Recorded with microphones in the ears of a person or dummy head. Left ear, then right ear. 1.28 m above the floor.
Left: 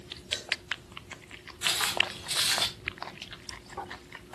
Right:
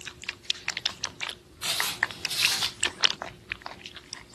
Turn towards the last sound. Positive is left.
turn(degrees=40)  # may be behind; listen again after turning